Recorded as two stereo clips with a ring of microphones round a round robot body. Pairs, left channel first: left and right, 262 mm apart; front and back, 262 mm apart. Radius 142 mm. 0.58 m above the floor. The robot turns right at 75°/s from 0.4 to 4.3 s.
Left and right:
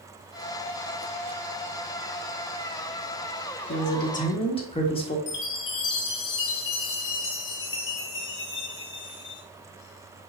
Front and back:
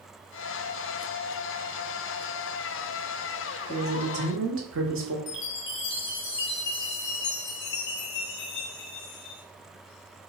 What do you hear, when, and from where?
3.7 s a man speaking: 110° left, 1.5 m; by 5.2 s 155° left, 1.5 m
5.3 s a chime: 45° left, 1.4 m